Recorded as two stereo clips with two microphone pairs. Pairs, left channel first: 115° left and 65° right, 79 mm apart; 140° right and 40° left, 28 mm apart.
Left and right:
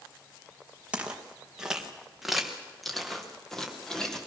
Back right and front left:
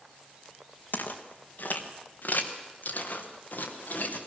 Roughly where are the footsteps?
Behind right.